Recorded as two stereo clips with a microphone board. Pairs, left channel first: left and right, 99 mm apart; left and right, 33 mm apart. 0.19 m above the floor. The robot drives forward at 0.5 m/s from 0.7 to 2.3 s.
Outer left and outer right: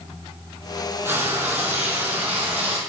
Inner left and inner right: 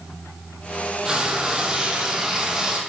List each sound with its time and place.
1.1 s frying: 25° right (ahead or behind), 3 m; by 2.8 s 20° right (ahead or behind), 3.5 m